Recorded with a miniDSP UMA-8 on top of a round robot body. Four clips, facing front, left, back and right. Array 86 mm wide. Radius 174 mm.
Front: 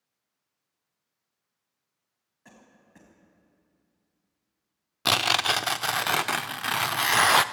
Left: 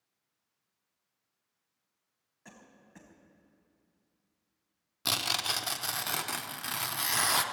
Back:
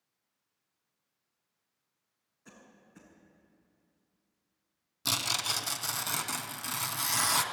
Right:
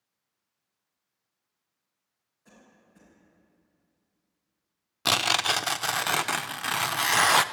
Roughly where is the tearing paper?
Ahead right.